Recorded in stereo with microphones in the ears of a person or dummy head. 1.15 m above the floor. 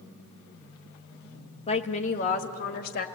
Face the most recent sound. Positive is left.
turn(degrees=55)  # may be behind; listen again after turning